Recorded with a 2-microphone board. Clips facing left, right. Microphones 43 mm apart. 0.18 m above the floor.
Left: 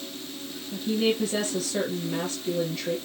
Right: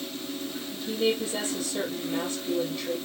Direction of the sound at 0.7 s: 60° left (ahead or behind).